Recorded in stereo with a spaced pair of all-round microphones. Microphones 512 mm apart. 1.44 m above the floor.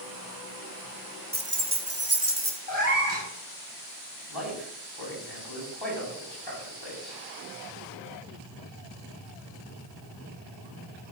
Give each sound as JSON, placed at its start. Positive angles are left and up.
{"t": 1.3, "sound": "keys jangling", "side_deg": -20, "distance_m": 0.9}
{"t": 2.7, "sound": "a cat meowing", "side_deg": 35, "distance_m": 5.0}
{"t": 4.3, "sound": "a man speaking", "side_deg": 45, "distance_m": 4.5}